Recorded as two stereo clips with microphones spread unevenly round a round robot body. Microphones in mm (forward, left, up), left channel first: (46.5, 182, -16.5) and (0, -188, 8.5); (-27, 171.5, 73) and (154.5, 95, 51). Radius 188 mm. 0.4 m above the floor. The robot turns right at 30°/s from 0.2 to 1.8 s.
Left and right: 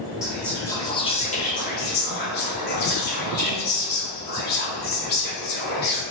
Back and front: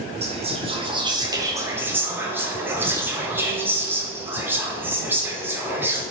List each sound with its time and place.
0.2 s whispering: 5° right, 1.1 m; by 6.0 s 45° left, 1.1 m